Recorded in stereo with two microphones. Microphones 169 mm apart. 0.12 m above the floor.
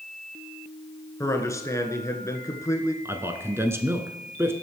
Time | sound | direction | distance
1.2 | a man speaking | 20° left (ahead or behind) | 1.2 m
3.0 | a man speaking | 15° right (ahead or behind) | 1.1 m